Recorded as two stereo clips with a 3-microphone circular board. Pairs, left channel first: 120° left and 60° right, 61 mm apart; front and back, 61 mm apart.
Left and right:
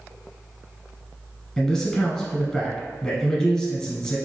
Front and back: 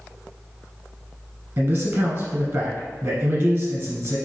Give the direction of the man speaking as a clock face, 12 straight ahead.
5 o'clock.